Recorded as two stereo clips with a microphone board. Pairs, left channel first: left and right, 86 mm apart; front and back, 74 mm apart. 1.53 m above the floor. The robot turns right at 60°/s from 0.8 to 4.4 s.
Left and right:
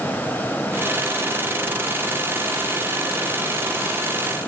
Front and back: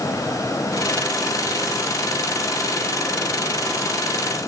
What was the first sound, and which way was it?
Only background noise.